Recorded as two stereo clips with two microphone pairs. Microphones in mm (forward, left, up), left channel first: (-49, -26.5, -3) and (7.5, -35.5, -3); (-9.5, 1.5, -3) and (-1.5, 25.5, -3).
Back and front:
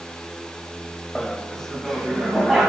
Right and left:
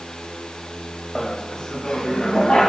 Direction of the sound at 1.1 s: 145° right.